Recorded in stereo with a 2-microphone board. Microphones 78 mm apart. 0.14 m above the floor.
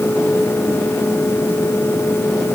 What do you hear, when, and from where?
Only background noise.